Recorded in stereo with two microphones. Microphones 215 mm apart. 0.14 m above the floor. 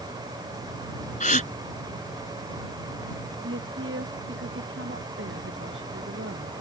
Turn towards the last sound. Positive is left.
turn(degrees=-65)  # may be behind; listen again after turning